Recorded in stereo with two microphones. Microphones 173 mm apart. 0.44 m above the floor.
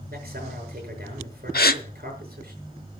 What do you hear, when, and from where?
0.1 s a man speaking: 60° right (ahead or behind), 7.5 m
1.5 s a gasp: 65° left (ahead or behind), 0.9 m